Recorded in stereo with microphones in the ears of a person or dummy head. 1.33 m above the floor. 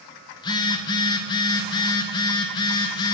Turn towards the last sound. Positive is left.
turn(degrees=25)  # may be behind; listen again after turning